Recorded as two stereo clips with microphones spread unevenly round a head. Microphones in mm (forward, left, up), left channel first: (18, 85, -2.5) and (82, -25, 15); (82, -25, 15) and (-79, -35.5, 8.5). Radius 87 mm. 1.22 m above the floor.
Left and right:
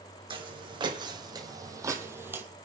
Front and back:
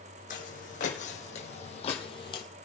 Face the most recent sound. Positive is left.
turn(degrees=-15)